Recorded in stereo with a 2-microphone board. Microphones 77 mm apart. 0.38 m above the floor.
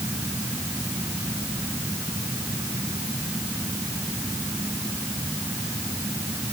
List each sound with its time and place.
Only background noise.